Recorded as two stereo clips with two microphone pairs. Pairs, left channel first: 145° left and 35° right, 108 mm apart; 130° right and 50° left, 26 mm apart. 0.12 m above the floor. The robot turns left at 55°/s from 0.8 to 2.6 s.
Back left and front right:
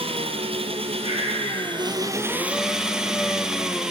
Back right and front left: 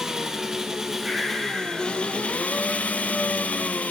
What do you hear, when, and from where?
0.0 s an engine running: 20° right, 0.8 m; by 3.9 s 120° right, 0.8 m
1.0 s breathing: 130° left, 3 m; by 2.0 s 75° left, 3 m